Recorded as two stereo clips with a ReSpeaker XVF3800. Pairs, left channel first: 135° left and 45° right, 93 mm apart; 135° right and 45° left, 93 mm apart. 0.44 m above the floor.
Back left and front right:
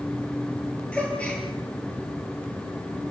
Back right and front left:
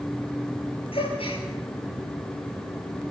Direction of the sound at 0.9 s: 145° right.